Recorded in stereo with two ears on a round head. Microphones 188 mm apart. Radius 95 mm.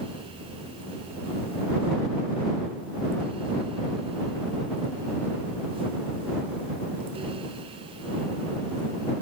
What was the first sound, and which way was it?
Only background noise.